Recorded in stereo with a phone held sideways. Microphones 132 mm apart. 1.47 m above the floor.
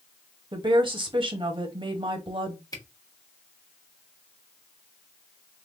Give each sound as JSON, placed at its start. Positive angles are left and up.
{"t": 0.5, "sound": "a woman speaking", "side_deg": -40, "distance_m": 0.7}
{"t": 2.7, "sound": "a camera shutter", "side_deg": 30, "distance_m": 0.9}